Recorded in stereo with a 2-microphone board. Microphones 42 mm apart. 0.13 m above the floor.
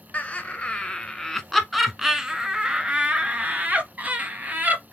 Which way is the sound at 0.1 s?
35° left (ahead or behind).